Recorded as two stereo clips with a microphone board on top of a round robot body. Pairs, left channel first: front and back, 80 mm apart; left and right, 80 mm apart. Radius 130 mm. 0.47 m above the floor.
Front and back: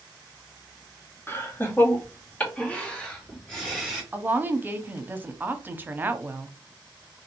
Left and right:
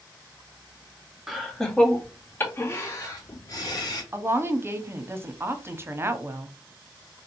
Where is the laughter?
5° right, 1.2 m; by 4.0 s 85° left, 1.7 m.